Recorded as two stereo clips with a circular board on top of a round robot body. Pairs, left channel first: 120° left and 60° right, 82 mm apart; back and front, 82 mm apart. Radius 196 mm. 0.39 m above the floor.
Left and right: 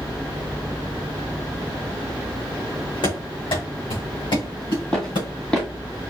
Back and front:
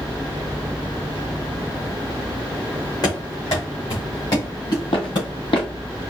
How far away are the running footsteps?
About 3 m.